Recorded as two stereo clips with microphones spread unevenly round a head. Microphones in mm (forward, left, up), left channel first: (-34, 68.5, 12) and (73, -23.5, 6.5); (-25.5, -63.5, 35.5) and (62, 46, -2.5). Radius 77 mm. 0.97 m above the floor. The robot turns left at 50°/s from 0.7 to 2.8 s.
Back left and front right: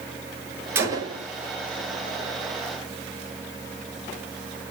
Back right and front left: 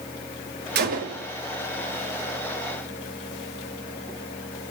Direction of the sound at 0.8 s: 35° left.